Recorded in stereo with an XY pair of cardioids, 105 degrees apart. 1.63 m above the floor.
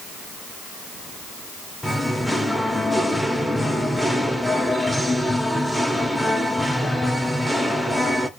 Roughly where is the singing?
Ahead.